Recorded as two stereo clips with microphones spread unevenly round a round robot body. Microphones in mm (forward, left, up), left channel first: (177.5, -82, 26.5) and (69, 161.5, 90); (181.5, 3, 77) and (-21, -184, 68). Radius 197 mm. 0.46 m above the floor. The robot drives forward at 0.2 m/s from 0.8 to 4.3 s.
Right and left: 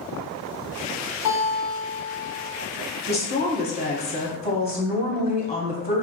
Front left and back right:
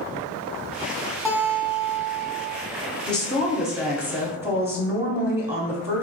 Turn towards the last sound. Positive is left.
turn(degrees=-60)